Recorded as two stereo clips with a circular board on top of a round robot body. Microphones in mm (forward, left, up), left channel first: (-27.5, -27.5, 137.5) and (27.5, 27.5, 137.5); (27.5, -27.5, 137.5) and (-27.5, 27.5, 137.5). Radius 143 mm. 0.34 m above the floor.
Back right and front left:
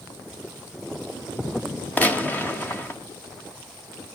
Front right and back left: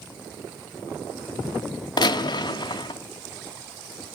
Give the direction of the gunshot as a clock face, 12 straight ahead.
2 o'clock.